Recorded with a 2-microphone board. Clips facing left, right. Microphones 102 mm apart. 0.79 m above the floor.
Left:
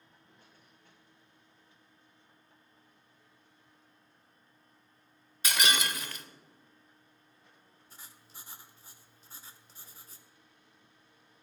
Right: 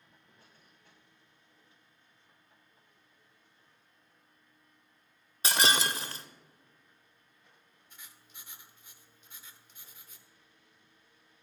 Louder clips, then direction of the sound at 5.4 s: Right 2 dB; 35° right (ahead or behind).